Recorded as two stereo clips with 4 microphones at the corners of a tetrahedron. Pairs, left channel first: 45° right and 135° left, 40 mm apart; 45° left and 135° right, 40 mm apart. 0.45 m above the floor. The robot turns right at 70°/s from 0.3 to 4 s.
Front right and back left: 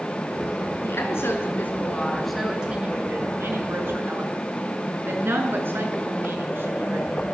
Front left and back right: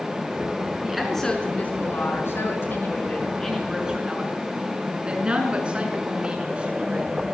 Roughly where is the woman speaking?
Ahead right.